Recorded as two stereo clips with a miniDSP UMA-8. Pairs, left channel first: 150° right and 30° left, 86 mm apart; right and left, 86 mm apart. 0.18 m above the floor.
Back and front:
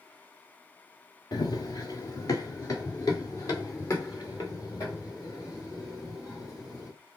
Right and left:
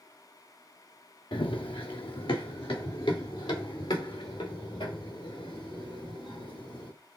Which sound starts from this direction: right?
Running footsteps, at 1.3 s.